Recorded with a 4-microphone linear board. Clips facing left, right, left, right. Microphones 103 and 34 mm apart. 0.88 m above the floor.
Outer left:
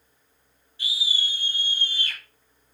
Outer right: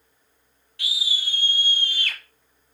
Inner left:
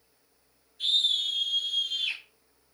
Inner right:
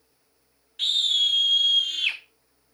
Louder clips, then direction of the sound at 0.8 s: Even, inner right 4 dB; 75° right (ahead or behind).